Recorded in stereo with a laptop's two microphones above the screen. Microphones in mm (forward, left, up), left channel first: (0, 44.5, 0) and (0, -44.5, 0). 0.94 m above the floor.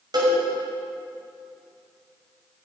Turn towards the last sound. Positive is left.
turn(degrees=-50)  # may be behind; listen again after turning